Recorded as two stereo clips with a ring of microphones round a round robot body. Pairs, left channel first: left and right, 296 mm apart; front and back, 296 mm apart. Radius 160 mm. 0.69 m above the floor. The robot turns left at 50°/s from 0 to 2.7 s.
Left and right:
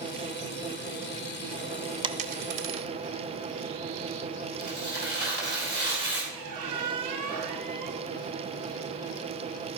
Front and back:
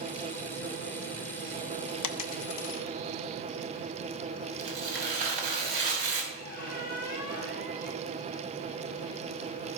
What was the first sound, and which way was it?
A dropped coin, 15° right.